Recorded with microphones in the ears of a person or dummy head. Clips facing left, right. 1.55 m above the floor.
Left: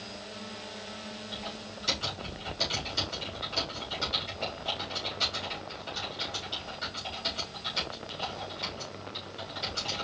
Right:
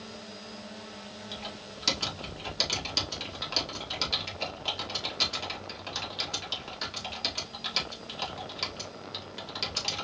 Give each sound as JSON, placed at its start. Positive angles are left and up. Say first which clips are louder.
{"t": 1.3, "sound": "typing on a keyboard", "louder": "left 1 dB", "side_deg": -85, "distance_m": 2.0}